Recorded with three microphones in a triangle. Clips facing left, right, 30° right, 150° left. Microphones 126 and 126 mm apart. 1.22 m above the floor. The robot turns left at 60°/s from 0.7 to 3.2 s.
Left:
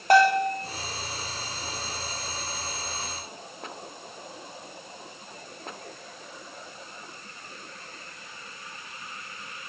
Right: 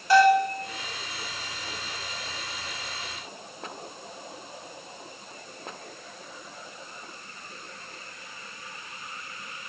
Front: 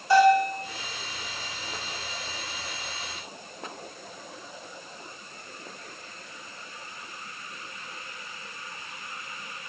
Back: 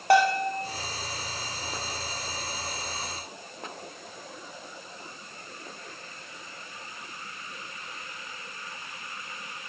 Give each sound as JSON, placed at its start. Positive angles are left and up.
{"t": 0.1, "sound": "a bell", "azimuth_deg": 125, "distance_m": 1.1}